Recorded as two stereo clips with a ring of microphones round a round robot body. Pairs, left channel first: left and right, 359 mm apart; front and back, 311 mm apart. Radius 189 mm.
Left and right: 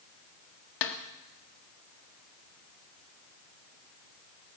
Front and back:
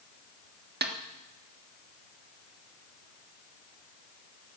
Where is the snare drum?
120° left, 1.4 m.